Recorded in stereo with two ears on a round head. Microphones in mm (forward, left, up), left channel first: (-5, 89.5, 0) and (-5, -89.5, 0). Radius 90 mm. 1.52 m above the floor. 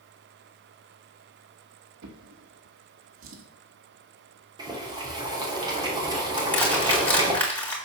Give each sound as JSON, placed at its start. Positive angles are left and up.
{"t": 2.0, "sound": "a drawer", "side_deg": -65, "distance_m": 1.9}
{"t": 4.6, "sound": "boiling", "side_deg": -20, "distance_m": 3.0}
{"t": 6.4, "sound": "crushing", "side_deg": 10, "distance_m": 4.0}